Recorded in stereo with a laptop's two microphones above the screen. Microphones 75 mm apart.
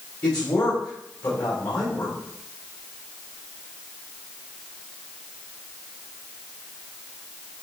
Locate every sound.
0.2 s a man speaking: 65° left (ahead or behind), 4 m